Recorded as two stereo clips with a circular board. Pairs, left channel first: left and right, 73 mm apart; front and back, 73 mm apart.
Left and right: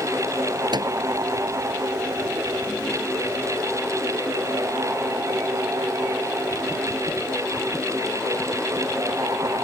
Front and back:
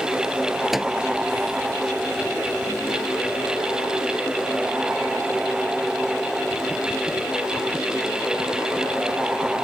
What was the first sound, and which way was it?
A microwave, 95° right.